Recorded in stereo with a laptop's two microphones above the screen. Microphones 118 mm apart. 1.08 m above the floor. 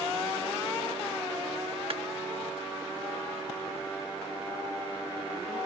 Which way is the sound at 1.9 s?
55° right (ahead or behind).